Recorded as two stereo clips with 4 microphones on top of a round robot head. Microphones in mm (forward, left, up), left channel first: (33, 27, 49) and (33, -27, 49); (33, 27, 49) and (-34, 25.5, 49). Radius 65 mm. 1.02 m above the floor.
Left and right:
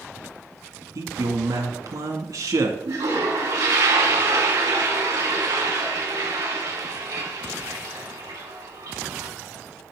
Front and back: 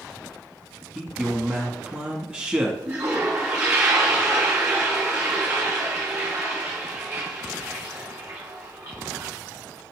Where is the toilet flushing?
120° right, 3.5 m.